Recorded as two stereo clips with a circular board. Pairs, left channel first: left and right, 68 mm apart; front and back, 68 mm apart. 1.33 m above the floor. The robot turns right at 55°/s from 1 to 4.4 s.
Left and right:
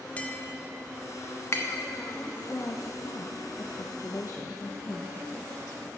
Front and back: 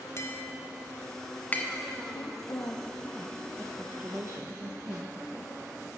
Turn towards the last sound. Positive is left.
turn(degrees=140)